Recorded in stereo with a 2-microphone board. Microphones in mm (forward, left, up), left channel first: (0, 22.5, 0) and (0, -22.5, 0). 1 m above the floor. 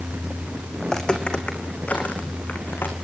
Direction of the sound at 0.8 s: 15° left (ahead or behind).